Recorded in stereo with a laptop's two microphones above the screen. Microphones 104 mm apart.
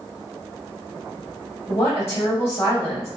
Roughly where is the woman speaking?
Left.